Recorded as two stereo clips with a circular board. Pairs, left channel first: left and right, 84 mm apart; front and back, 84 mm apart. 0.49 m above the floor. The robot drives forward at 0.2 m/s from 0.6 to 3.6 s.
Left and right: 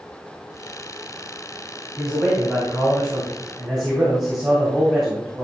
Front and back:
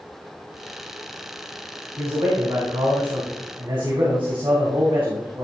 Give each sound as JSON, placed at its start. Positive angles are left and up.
{"t": 2.0, "sound": "a man speaking", "azimuth_deg": 180, "distance_m": 2.5}